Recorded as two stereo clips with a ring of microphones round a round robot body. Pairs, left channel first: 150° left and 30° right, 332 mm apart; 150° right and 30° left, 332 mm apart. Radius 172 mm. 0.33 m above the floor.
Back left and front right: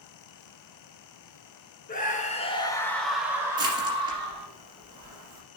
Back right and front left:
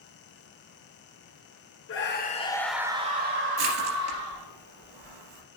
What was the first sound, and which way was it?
A scream, 160° right.